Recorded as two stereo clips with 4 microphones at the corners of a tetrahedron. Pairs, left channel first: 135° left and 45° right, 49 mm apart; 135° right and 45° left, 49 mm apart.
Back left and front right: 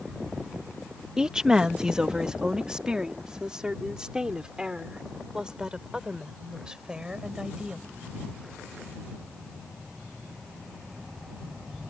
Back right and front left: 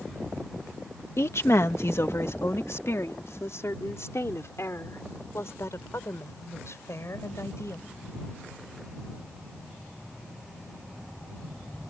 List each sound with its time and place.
1.2 s a woman speaking: 120° right